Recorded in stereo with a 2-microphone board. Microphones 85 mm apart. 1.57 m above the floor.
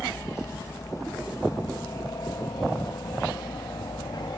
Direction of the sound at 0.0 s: 30° left (ahead or behind).